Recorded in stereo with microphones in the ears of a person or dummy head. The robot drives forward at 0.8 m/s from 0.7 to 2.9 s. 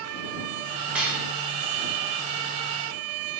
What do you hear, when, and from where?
0.9 s dishes clattering: 5° right (ahead or behind), 0.7 m